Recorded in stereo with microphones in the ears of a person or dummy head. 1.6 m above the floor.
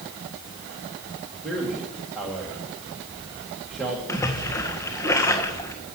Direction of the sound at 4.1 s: 15° left (ahead or behind).